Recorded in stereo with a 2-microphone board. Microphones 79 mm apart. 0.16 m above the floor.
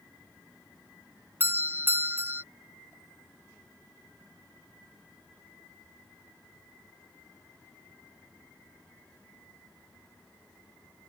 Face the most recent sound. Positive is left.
turn(degrees=-30)  # may be behind; listen again after turning